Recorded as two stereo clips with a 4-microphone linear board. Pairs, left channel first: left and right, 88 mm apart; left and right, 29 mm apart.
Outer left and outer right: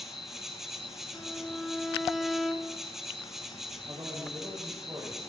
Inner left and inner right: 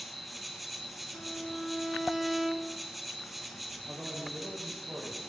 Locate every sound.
0.0 s an insect: 5° right (ahead or behind), 0.7 m
1.1 s a violin: centre (ahead or behind), 0.5 m
3.9 s a man speaking: 65° right (ahead or behind), 4 m